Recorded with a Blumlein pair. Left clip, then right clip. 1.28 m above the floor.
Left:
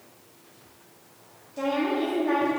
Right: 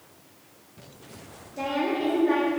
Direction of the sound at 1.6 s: Straight ahead.